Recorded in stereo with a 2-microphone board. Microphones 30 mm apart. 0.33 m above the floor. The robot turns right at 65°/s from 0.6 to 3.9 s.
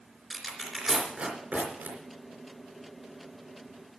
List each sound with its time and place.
0.3 s tearing paper: centre (ahead or behind), 3 m; by 2.0 s 75° right (ahead or behind), 3 m